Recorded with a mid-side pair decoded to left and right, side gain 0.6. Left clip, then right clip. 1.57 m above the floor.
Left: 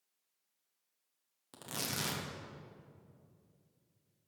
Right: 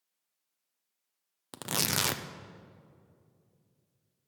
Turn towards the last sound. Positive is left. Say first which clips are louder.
# right 9 dB
turn(degrees=-55)